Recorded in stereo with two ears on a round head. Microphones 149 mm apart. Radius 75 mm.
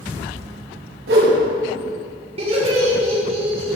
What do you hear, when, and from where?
1.1 s a whoosh: 80° right, 5 m
2.4 s laughter: 40° right (ahead or behind), 4.5 m